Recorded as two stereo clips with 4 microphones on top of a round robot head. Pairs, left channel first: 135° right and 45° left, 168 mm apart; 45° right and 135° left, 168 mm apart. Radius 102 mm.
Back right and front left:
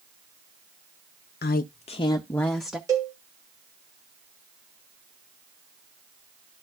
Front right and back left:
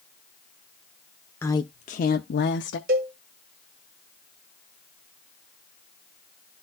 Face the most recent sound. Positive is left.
turn(degrees=110)